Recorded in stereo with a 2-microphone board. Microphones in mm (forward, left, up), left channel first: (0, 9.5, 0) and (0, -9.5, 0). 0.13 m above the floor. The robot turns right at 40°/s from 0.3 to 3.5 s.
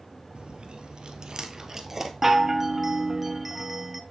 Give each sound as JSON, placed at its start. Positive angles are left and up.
{"t": 0.3, "sound": "chewing", "side_deg": -65, "distance_m": 1.2}
{"t": 2.2, "sound": "a chime", "side_deg": -20, "distance_m": 0.7}